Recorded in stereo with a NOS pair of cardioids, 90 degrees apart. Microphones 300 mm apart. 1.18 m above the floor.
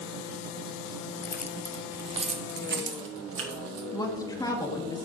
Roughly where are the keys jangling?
Ahead left.